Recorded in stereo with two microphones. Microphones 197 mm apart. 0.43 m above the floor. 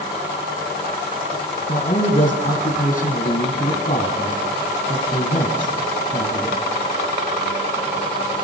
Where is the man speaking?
45° left (ahead or behind), 3.5 m.